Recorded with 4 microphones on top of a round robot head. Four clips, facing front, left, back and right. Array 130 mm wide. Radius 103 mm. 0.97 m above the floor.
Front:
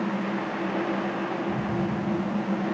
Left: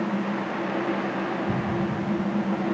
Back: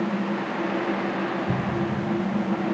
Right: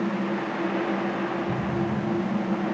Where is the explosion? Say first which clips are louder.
Even, back 1 dB; 160° left, 9 m.